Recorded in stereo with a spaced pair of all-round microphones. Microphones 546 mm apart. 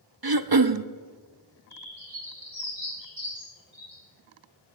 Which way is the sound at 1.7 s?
60° right (ahead or behind).